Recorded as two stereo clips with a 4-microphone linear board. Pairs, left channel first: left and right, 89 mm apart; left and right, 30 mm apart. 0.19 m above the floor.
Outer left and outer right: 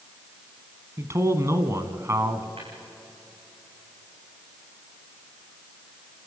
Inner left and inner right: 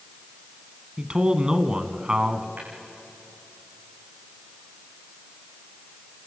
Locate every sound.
1.0 s a man speaking: 35° right (ahead or behind), 1.6 m
2.6 s tapping: 85° right, 7.5 m